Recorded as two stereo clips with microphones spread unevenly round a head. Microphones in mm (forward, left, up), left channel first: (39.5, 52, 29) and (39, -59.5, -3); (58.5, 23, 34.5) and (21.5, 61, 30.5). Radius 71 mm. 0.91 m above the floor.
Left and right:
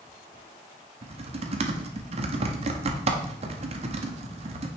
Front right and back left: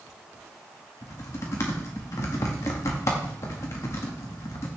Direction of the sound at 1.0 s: 90° right.